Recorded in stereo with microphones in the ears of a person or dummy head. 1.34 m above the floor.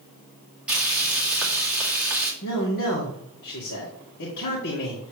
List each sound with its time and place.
0.7 s frying: 5° right (ahead or behind), 2.0 m
2.4 s a man speaking: 65° left (ahead or behind), 2.0 m